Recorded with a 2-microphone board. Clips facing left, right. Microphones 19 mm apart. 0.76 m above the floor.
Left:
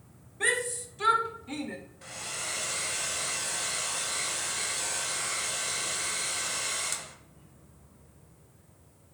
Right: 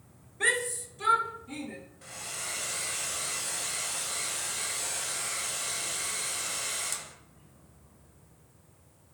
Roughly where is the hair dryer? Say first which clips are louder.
Left 2 dB; centre.